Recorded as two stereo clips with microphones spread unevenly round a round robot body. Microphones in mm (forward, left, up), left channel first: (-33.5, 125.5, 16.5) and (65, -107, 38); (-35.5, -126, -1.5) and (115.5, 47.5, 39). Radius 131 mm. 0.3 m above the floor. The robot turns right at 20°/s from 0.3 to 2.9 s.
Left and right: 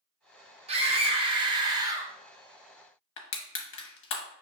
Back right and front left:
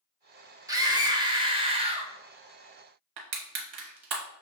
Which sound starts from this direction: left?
Crushing, at 3.2 s.